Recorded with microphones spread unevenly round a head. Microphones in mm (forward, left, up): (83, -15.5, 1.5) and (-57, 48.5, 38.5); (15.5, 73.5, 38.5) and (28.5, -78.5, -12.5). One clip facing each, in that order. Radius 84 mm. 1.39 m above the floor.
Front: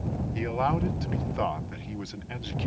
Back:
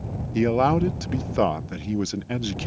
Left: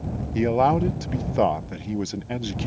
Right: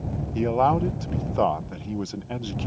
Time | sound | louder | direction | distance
0.3 | a man speaking | back 9 dB, left 2 dB | 160° left | ?